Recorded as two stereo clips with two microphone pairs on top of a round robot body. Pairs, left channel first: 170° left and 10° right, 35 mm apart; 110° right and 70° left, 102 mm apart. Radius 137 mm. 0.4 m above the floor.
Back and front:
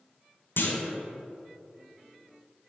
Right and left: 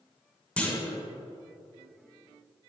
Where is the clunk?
170° left, 1.0 m.